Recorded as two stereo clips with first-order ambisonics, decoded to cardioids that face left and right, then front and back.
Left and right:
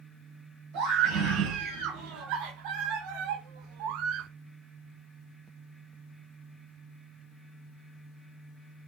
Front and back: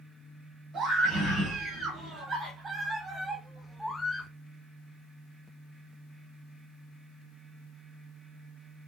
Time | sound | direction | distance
0.7 | a scream | 120° right | 2.5 m